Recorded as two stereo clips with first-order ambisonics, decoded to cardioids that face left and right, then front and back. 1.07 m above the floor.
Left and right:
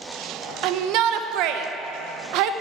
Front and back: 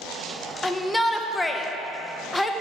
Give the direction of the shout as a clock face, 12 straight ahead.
3 o'clock.